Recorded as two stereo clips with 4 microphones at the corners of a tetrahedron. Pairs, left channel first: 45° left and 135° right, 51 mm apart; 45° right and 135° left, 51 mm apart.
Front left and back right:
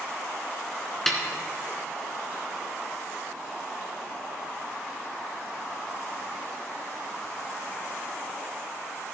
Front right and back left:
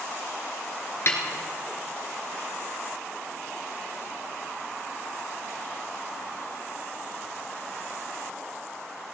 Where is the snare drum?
35° right, 1.9 m.